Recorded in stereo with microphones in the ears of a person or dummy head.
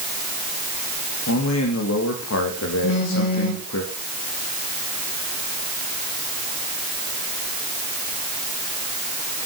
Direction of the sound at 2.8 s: 65° left (ahead or behind).